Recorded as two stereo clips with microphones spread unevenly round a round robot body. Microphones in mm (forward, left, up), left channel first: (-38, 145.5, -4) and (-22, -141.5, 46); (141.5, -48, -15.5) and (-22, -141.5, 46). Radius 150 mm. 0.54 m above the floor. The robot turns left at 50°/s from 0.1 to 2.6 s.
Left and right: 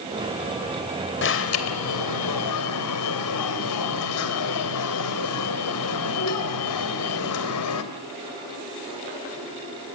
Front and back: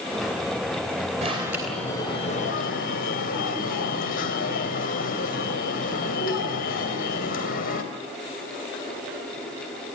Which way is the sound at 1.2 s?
135° left.